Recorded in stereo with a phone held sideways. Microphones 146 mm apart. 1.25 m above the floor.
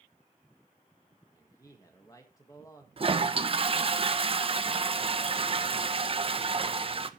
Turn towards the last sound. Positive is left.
turn(degrees=-40)  # may be behind; listen again after turning